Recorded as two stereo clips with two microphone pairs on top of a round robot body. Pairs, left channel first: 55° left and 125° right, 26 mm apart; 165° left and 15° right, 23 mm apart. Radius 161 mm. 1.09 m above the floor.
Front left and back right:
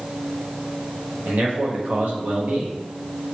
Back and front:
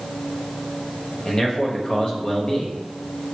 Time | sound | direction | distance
1.2 | a man speaking | 145° right | 1.2 m